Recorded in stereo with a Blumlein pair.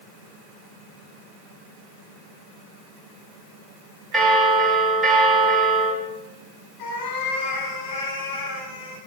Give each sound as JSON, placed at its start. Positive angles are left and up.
{"t": 4.1, "sound": "a bell", "azimuth_deg": -10, "distance_m": 5.5}
{"t": 6.8, "sound": "a cat meowing", "azimuth_deg": 40, "distance_m": 7.0}